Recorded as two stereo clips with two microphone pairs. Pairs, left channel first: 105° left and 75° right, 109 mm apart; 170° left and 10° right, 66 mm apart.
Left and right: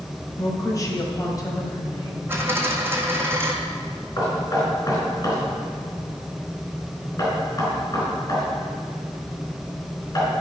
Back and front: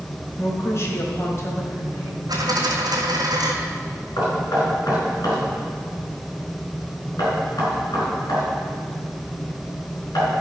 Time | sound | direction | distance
0.4 | a woman speaking | 150° left | 2 m
2.3 | a dropped coin | 5° right | 1.9 m
4.2 | knocking | 155° left | 4 m